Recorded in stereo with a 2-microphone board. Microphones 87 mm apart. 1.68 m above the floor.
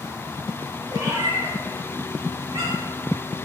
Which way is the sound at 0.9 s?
40° right (ahead or behind).